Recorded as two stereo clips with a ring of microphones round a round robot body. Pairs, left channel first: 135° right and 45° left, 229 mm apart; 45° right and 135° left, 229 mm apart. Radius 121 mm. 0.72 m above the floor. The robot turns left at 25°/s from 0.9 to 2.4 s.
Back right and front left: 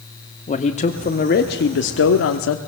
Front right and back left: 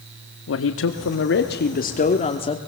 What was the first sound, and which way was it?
A man speaking, 75° right.